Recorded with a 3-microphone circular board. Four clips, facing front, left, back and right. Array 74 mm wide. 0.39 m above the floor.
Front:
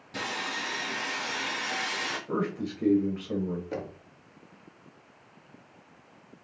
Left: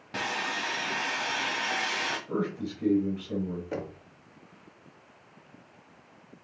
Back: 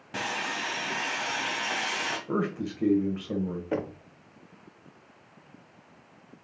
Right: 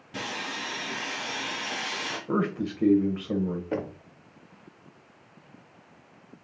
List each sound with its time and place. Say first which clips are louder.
0.1 s sawing: left 3 dB, back 2 dB; 130° left, 1.7 m
2.3 s a man speaking: right 4 dB, back 1 dB; 105° right, 1.3 m
3.7 s knocking: right 4 dB, back 5 dB; 150° right, 0.6 m